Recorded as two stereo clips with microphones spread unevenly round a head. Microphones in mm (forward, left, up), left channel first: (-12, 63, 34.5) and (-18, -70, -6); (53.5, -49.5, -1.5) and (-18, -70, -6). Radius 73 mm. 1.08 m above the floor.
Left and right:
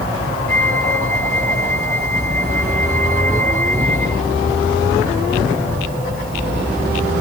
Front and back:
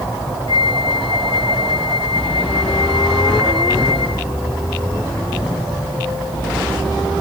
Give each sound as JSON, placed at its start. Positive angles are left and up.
{"t": 0.5, "sound": "a flute", "azimuth_deg": 10}